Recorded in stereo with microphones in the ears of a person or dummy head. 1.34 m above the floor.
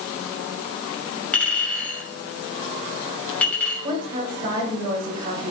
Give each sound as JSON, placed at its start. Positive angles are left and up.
{"t": 1.3, "sound": "a clink", "side_deg": 10, "distance_m": 6.0}
{"t": 3.8, "sound": "a woman speaking", "side_deg": -25, "distance_m": 5.5}